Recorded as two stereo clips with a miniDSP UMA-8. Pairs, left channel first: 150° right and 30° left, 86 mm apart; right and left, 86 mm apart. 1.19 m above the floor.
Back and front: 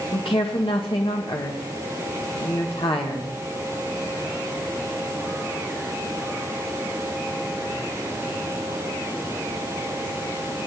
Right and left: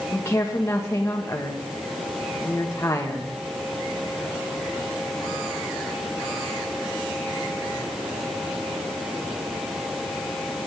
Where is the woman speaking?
150° right, 1.5 m.